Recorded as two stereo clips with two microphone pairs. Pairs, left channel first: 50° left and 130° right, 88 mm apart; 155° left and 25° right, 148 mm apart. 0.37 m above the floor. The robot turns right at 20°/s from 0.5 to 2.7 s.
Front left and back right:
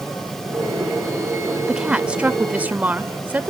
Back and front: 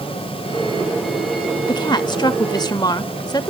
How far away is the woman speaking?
About 0.9 m.